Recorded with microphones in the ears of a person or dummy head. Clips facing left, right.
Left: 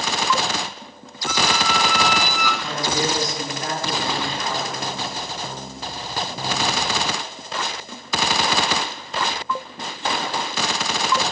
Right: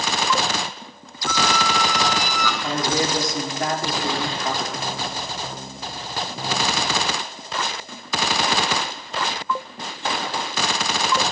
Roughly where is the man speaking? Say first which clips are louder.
Right 3 dB; right.